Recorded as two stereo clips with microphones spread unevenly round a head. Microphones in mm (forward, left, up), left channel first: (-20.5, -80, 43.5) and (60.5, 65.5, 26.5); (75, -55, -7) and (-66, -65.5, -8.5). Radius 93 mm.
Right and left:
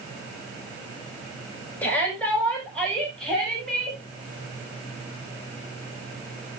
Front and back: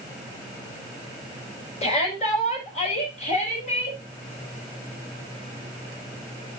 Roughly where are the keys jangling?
I don't hear keys jangling.